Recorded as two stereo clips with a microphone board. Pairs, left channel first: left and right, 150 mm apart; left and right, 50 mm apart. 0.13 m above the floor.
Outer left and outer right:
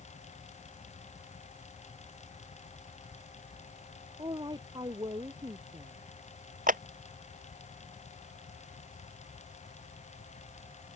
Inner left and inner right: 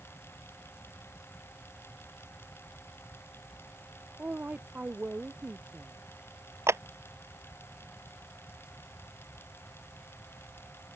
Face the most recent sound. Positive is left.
turn(degrees=-60)  # may be behind; listen again after turning